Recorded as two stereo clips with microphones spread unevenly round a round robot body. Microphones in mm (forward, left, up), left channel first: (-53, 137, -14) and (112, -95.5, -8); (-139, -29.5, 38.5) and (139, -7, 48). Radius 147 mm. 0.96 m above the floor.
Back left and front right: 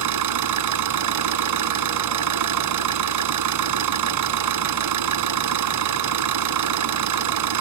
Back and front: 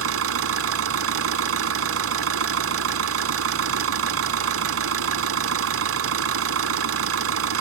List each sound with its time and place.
0.0 s an engine running: 35° right